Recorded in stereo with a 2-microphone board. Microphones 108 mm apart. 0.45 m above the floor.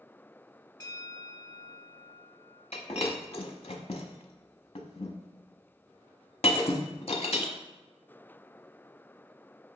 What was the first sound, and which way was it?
A bell, 40° left (ahead or behind).